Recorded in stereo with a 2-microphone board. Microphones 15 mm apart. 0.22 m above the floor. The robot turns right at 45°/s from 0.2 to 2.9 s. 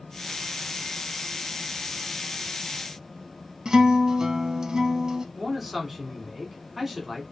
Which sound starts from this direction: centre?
A man speaking, at 5.3 s.